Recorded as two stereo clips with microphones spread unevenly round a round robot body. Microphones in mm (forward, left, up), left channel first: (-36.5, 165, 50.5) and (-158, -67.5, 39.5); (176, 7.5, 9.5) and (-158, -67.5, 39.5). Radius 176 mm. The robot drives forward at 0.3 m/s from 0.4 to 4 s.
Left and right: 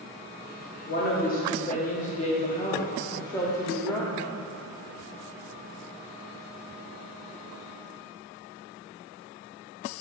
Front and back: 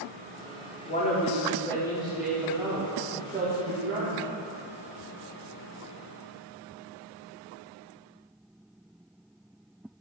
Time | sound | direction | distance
0.9 | a woman speaking | 50° left | 1.0 m